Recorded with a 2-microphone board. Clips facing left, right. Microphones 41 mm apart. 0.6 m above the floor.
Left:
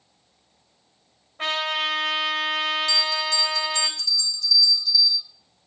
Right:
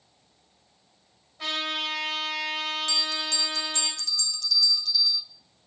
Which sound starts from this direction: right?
A bell, at 2.9 s.